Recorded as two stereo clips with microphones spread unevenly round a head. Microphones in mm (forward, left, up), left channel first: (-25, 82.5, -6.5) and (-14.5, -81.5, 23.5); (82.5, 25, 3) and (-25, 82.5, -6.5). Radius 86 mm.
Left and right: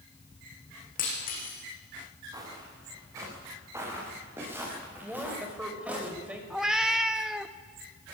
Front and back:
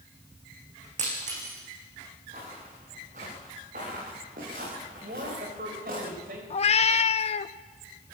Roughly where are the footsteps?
Behind right.